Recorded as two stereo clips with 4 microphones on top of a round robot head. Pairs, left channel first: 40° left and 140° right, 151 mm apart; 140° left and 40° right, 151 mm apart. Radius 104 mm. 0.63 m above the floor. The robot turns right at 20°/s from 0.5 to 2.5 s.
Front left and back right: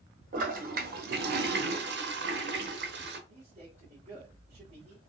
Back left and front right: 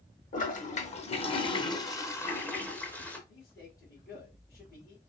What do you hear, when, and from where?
0.3 s a toilet flushing: straight behind, 0.9 m; by 3.2 s 140° right, 0.9 m
3.3 s a man speaking: 165° left, 3 m